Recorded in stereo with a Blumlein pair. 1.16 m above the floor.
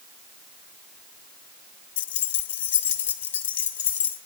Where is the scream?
I don't hear a scream.